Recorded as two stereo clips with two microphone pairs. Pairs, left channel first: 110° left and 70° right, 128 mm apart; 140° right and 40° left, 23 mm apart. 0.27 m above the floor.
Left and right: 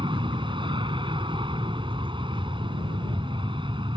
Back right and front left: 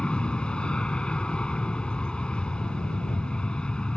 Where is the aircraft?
110° right.